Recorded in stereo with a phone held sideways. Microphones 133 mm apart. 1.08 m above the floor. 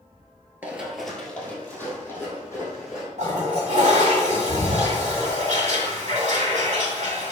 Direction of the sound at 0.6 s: 15° right (ahead or behind).